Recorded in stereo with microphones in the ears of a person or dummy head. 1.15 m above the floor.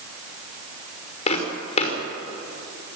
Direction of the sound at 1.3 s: 40° left (ahead or behind).